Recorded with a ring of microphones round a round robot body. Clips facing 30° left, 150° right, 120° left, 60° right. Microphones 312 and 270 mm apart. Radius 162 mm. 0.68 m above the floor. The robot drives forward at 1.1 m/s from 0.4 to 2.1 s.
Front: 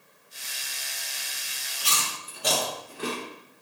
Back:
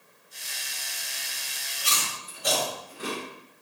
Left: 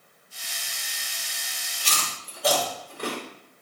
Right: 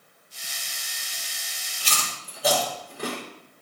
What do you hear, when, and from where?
1.8 s chewing: 20° left, 2.5 m; by 3.2 s 25° left, 2.5 m